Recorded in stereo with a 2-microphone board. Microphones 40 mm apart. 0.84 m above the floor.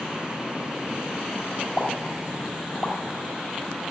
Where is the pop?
40° left (ahead or behind), 4.5 m.